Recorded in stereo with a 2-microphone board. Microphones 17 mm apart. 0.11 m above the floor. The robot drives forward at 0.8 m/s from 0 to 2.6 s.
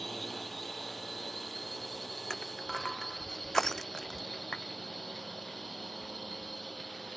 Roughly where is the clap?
Left.